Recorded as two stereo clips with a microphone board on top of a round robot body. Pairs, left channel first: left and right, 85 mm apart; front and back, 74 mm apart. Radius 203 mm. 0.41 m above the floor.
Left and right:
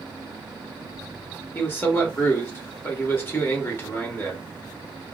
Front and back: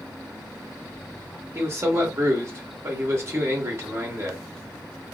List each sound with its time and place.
1.6 s a man speaking: 145° left, 1.5 m